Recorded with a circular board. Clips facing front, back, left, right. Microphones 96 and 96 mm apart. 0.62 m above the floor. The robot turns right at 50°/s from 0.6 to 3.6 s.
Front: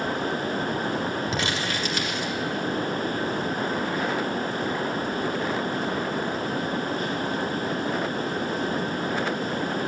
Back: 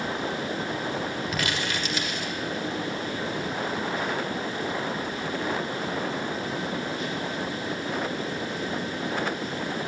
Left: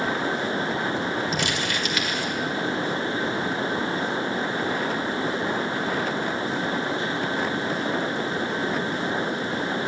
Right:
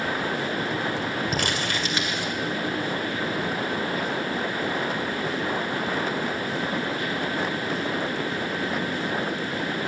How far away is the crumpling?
About 1.9 m.